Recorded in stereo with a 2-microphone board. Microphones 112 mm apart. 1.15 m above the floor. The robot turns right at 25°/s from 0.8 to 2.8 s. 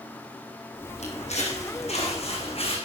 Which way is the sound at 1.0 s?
75° left (ahead or behind).